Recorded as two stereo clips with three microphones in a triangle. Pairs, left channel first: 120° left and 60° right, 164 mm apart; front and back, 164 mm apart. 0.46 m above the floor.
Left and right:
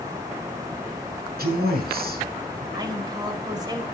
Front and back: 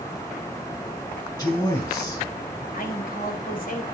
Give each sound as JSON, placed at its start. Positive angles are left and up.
{"t": 1.4, "sound": "a man speaking", "azimuth_deg": -60, "distance_m": 3.5}
{"t": 2.7, "sound": "a man speaking", "azimuth_deg": 5, "distance_m": 2.0}